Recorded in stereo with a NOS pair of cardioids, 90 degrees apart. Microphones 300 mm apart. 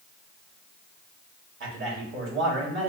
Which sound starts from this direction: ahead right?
A man speaking, at 1.6 s.